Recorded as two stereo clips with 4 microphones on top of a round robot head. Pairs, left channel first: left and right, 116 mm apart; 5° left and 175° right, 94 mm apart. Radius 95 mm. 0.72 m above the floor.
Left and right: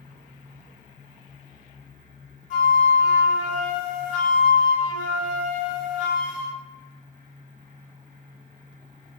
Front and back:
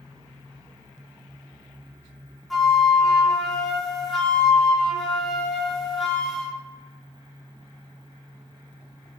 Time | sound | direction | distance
2.5 | a flute | 95° left | 0.5 m